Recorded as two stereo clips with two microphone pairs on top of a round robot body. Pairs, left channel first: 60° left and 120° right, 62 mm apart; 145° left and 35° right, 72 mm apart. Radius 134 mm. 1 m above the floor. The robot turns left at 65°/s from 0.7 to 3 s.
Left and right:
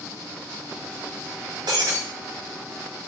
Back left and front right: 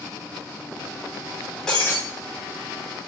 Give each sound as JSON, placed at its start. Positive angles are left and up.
{"t": 1.7, "sound": "breaking glass", "azimuth_deg": -130, "distance_m": 2.0}